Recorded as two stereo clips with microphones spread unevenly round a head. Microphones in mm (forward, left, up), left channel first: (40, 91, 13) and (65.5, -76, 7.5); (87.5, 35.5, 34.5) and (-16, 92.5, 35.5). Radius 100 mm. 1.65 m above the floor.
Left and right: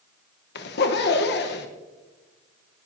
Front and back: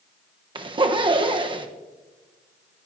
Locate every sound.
0.6 s a zipper: 110° left, 1.0 m